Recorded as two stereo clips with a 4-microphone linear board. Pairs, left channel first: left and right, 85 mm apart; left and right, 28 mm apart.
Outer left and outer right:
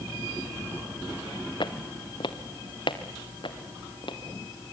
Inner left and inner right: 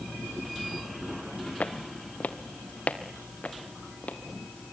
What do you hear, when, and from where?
1.6 s footsteps: 65° left (ahead or behind), 1.1 m